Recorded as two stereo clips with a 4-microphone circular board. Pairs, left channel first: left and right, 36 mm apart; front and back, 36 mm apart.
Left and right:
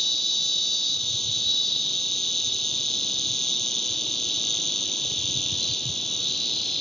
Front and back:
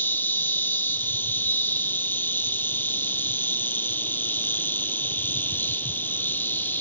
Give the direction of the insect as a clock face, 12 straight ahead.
12 o'clock.